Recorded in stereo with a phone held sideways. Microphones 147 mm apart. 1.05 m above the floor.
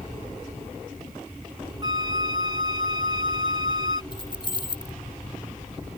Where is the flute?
30° right (ahead or behind).